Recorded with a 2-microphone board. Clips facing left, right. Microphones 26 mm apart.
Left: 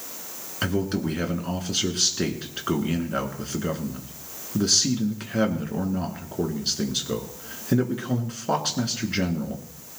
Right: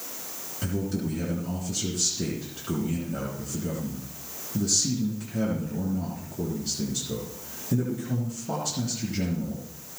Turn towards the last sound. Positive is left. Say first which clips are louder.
# left 5 dB
turn(degrees=55)  # may be behind; listen again after turning